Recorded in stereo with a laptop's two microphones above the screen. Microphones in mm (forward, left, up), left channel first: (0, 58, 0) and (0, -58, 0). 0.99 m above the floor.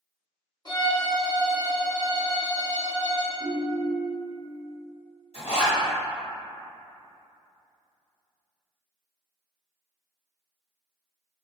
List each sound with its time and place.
0.7 s a violin: 40° left (ahead or behind), 1.0 m
3.4 s a ringtone: centre (ahead or behind), 0.5 m
5.3 s a zipper: 60° left (ahead or behind), 1.4 m